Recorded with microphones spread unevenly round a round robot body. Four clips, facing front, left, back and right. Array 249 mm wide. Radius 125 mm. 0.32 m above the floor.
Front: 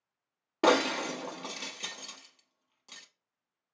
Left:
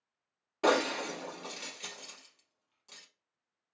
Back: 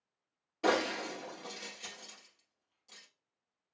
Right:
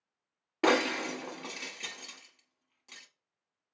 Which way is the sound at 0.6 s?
20° right.